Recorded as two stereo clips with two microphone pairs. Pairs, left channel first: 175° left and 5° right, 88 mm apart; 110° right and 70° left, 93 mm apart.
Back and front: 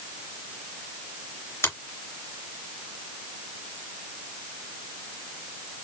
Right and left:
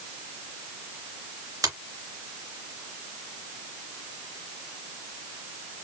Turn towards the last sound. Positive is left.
turn(degrees=120)